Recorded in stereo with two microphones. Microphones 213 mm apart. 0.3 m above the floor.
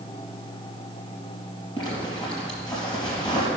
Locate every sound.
1.8 s a zipper: 20° left (ahead or behind), 3.5 m